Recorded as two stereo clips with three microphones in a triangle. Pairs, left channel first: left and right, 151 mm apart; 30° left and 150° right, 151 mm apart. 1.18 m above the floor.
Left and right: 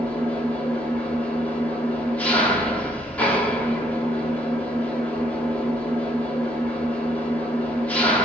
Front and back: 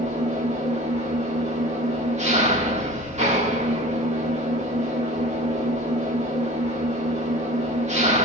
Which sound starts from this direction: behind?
An engine running, at 0.0 s.